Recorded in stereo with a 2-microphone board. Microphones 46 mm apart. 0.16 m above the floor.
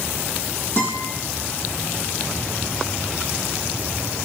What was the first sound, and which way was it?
A guitar, 60° left (ahead or behind).